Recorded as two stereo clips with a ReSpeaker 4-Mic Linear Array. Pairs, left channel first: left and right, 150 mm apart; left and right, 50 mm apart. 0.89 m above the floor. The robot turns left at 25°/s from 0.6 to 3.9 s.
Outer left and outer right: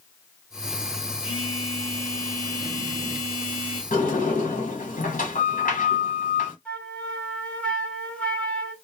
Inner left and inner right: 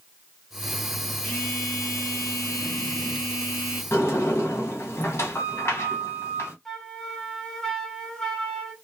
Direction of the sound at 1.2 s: 145° left.